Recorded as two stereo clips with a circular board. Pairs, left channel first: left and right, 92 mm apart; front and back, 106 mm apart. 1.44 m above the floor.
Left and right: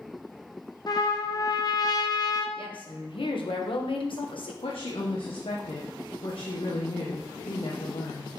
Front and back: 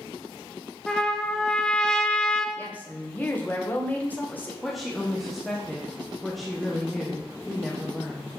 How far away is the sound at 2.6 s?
About 1.3 m.